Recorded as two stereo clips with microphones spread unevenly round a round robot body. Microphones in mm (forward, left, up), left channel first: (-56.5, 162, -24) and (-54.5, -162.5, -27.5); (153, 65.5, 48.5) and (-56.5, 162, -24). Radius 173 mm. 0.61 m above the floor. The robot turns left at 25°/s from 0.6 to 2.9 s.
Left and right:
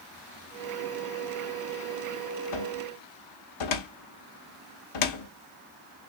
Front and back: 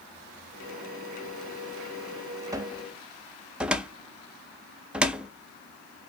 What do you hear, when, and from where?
2.5 s a cupboard door: 85° left, 0.6 m; by 5.3 s 75° left, 0.6 m